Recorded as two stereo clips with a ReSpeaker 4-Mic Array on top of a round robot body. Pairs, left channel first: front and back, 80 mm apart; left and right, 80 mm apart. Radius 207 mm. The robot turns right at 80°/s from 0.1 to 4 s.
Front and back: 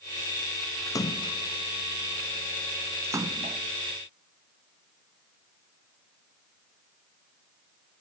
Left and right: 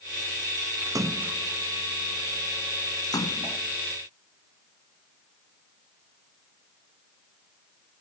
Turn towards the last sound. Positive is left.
turn(degrees=-165)